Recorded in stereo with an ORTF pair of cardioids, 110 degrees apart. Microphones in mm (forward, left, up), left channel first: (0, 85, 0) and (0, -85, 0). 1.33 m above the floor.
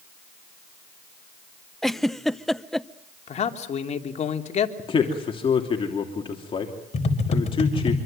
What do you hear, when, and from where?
1.8 s a giggle: straight ahead, 0.7 m
3.3 s a man speaking: 40° left, 3 m
4.8 s a man speaking: 30° left, 3 m
6.9 s tapping: 40° left, 4.5 m